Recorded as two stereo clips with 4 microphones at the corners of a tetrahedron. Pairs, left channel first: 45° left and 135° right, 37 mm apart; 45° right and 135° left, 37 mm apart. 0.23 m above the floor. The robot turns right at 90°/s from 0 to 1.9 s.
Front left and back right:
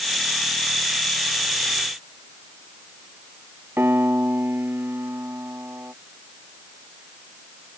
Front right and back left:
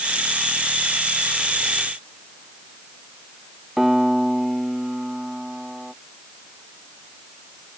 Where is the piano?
140° right.